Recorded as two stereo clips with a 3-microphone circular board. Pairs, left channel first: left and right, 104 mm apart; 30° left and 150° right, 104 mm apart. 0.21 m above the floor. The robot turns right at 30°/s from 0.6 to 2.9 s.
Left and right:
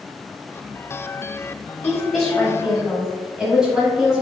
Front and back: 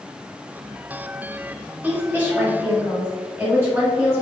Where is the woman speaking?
165° left, 1.2 m; by 4.2 s 160° right, 1.2 m.